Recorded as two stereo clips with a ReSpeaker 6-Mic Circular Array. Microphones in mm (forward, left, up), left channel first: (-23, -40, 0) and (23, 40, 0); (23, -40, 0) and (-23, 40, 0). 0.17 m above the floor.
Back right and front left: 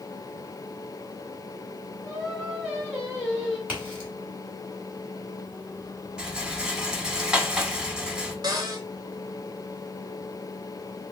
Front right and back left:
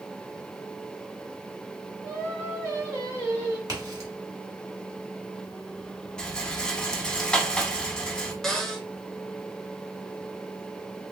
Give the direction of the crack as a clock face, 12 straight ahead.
8 o'clock.